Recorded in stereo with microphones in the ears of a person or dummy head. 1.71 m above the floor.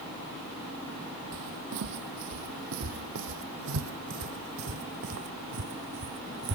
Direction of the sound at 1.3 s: 65° right (ahead or behind).